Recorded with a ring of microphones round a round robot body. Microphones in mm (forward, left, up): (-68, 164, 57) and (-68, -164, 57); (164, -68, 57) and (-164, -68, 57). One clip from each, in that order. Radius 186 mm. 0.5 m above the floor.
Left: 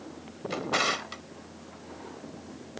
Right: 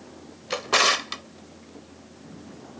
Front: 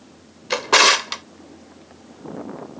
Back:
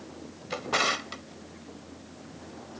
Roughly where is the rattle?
No rattle in this recording.